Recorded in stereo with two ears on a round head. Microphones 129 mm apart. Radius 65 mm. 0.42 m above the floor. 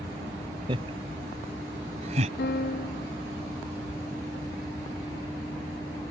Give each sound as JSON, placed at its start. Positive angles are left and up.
{"t": 0.7, "sound": "laughter", "side_deg": -35}
{"t": 2.4, "sound": "a piano", "side_deg": 70}